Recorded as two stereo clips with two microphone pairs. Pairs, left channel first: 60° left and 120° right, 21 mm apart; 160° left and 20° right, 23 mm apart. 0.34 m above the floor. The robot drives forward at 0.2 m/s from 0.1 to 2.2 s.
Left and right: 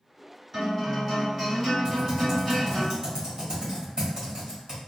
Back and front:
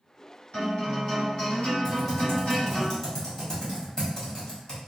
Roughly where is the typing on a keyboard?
Behind right.